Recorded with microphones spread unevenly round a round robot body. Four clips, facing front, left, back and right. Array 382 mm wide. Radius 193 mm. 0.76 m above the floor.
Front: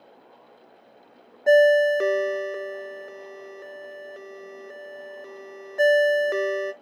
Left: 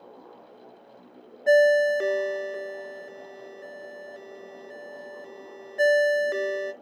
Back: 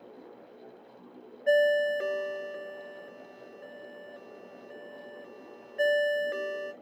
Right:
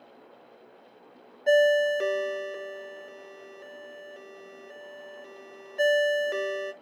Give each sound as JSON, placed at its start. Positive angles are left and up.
{"t": 1.5, "sound": "a ringtone", "azimuth_deg": 10, "distance_m": 0.5}